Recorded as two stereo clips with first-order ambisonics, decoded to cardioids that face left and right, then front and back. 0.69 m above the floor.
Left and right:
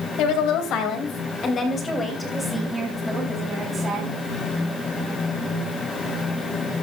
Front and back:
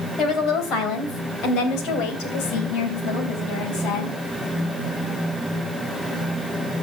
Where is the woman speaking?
55° left, 3 m; by 4.2 s 25° right, 4.5 m.